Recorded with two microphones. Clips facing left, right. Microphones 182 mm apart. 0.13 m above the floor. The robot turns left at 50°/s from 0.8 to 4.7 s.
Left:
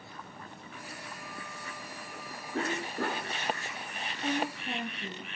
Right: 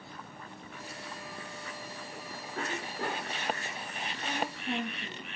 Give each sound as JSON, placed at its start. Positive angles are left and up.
{"t": 2.5, "sound": "a cough", "azimuth_deg": 110, "distance_m": 5.0}
{"t": 4.2, "sound": "a woman speaking", "side_deg": 30, "distance_m": 3.0}